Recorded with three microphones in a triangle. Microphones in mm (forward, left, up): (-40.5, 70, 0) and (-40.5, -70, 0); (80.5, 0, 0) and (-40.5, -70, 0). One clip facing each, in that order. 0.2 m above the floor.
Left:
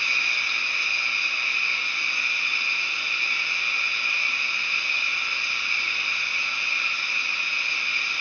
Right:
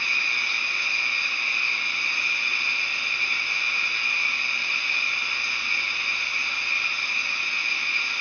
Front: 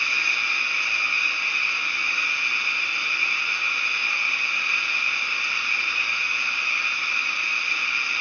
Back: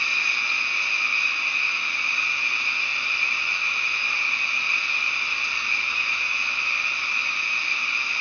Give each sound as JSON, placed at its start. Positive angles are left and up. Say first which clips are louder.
{"t": 0.0, "sound": "running water", "louder": "even, front 1 dB", "azimuth_deg": -95, "distance_m": 2.0}